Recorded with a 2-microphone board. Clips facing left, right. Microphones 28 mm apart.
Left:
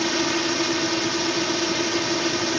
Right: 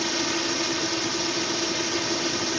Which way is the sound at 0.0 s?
15° left (ahead or behind).